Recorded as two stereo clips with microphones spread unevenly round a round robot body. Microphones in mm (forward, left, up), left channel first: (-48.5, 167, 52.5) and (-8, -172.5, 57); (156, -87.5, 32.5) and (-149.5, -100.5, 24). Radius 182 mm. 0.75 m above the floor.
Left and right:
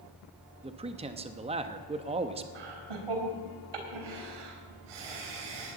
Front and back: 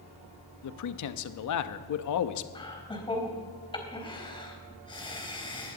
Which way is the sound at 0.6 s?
10° right.